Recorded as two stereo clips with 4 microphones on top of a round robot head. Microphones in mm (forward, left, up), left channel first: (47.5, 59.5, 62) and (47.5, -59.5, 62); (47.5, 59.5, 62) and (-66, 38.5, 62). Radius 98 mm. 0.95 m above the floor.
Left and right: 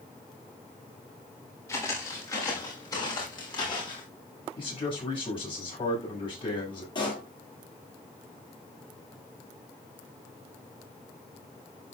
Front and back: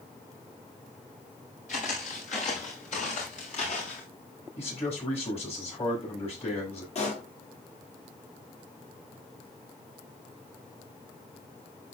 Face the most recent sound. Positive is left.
turn(degrees=40)